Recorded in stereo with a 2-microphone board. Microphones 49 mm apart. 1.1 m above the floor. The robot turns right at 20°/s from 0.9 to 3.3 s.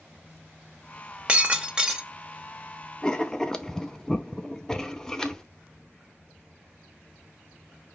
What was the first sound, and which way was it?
Breaking glass, 25° right (ahead or behind).